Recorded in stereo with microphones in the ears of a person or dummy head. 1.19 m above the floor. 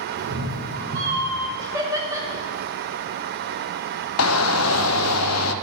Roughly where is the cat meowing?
Right.